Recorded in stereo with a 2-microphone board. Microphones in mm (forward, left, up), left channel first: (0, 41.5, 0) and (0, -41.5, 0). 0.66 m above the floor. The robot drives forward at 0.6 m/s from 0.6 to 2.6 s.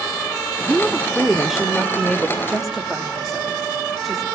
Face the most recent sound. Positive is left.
turn(degrees=0)  # may be behind; listen again after turning